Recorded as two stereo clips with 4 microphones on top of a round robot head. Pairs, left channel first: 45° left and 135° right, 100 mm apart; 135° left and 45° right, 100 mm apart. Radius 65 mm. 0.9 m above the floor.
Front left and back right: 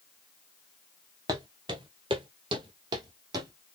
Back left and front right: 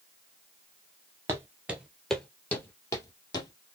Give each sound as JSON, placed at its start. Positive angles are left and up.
{"t": 1.3, "sound": "footsteps", "azimuth_deg": -95, "distance_m": 1.0}